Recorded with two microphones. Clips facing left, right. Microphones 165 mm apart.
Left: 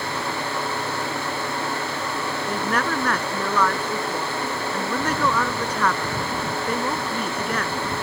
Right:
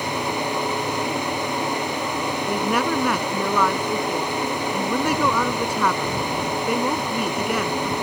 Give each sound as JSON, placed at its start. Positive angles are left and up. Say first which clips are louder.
{"t": 2.5, "sound": "a woman speaking", "louder": "right 3 dB", "side_deg": -10}